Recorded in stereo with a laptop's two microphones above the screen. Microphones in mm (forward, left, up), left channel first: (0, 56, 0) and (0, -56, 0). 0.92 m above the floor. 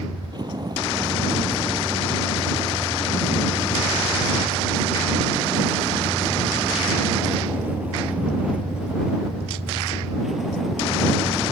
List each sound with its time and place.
0.0 s a vehicle: 40° right (ahead or behind); by 11.5 s centre (ahead or behind)